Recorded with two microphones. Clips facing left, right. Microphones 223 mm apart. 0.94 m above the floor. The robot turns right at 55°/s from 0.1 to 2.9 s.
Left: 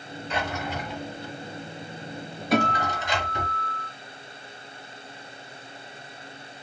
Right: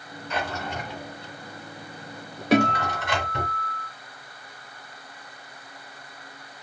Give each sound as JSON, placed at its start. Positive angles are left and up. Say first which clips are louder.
{"t": 0.3, "sound": "a drawer", "louder": "even", "side_deg": 30, "distance_m": 3.0}
{"t": 2.5, "sound": "a guitar", "louder": "right 4 dB", "side_deg": -80, "distance_m": 2.0}